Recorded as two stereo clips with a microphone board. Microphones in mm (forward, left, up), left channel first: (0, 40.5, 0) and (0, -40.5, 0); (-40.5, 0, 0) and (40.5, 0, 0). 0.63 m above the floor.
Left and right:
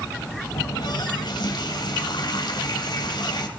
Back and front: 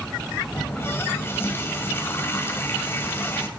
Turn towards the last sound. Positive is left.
turn(degrees=120)